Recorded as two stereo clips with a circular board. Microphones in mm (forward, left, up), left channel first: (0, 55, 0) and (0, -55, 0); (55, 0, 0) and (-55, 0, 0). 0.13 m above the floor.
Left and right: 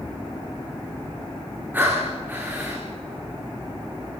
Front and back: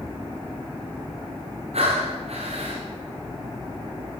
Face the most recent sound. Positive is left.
turn(degrees=-165)